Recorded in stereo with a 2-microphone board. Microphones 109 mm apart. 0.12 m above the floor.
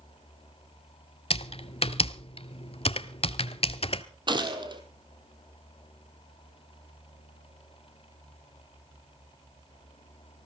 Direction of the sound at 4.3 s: 45° right (ahead or behind).